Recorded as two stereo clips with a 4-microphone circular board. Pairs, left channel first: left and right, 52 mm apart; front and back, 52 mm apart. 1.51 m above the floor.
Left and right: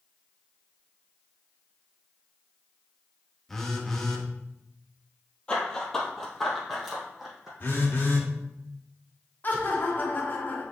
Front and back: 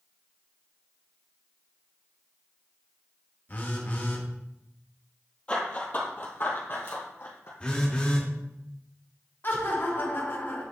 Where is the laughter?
40° left, 1.4 m.